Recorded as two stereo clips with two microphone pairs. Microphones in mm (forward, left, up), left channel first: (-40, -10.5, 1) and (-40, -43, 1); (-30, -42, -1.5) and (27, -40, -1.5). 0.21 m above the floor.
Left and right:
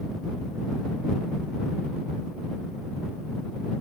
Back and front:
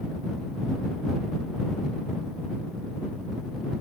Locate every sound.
Only background noise.